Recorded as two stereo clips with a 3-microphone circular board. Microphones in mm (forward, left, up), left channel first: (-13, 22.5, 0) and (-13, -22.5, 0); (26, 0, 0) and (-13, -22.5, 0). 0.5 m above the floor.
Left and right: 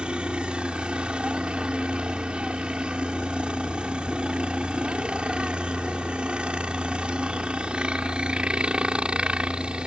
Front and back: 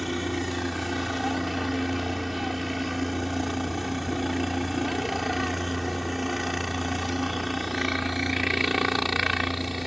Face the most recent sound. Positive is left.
turn(degrees=-65)